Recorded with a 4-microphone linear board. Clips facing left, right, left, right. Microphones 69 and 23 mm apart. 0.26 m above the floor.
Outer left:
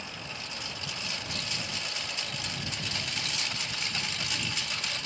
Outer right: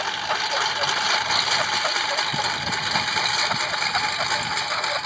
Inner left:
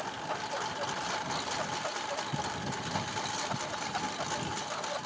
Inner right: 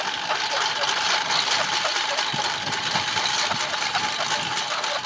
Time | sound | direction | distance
0.0 | a lawn mower | 70° right (ahead or behind) | ?